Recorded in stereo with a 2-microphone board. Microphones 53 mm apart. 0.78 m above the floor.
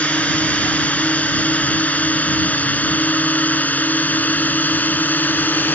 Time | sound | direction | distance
0.0 | a drone | 25° left (ahead or behind) | ?